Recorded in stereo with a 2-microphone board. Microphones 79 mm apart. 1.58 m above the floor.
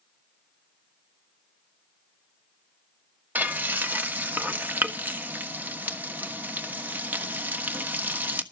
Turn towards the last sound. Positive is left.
turn(degrees=-20)  # may be behind; listen again after turning